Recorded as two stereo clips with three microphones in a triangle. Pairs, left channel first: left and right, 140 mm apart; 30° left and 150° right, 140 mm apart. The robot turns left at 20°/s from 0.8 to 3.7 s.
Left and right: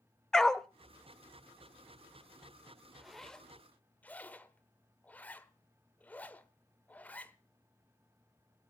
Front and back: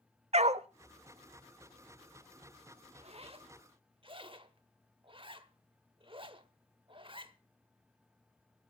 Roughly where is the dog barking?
Behind.